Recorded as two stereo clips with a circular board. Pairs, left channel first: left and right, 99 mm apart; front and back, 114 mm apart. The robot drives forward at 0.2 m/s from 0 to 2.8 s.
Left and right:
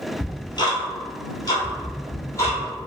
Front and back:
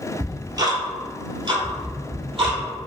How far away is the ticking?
About 0.7 m.